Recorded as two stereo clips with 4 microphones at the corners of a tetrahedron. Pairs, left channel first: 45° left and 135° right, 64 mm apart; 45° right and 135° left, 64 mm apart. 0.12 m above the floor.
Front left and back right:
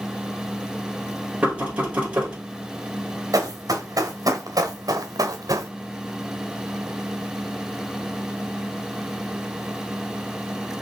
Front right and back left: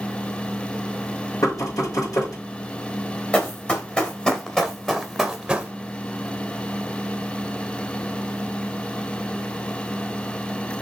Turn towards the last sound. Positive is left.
turn(degrees=-150)